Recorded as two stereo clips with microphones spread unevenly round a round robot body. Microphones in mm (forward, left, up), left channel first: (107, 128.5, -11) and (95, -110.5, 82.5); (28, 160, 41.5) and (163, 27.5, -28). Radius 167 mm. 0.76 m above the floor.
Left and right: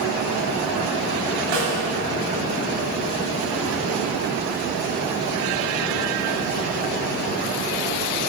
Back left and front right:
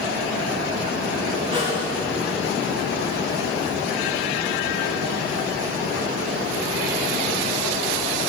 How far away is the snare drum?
About 2.5 m.